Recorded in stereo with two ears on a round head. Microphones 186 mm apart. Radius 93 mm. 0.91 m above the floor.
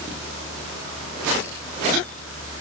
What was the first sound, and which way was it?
Only background noise.